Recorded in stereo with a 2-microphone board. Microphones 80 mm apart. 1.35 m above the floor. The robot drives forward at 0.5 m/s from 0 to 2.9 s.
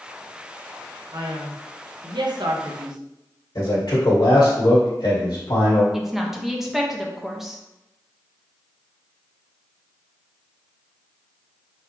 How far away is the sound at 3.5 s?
About 1.6 m.